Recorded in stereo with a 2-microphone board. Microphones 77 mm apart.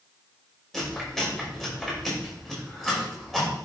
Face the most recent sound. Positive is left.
turn(degrees=5)  # may be behind; listen again after turning